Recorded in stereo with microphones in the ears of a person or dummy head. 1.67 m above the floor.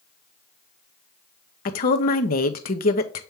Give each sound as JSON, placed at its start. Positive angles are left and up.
{"t": 1.6, "sound": "a woman speaking", "side_deg": 45, "distance_m": 0.7}